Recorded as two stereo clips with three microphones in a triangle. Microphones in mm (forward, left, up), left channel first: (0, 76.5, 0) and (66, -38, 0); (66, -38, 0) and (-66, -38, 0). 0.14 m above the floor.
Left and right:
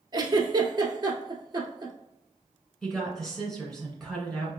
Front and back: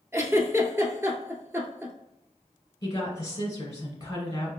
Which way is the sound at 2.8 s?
40° left.